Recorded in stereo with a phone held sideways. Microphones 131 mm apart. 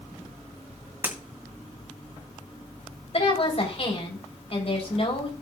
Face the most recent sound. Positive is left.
turn(degrees=50)  # may be behind; listen again after turning